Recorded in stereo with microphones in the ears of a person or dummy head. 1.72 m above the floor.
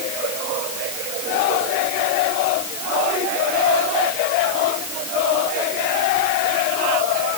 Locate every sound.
Only background noise.